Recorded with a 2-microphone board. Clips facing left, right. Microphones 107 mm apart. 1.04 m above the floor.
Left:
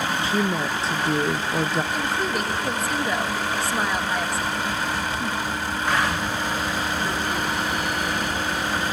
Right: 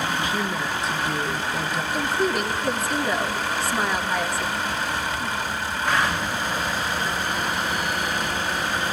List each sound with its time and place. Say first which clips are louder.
0.2 s a woman speaking: left 3 dB; 30° left (ahead or behind), 0.6 m
1.9 s a woman speaking: right 2 dB; centre (ahead or behind), 1.4 m